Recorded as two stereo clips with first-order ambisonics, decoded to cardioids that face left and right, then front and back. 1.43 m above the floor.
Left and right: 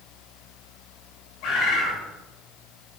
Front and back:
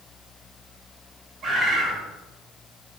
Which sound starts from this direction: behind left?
A bird, at 1.4 s.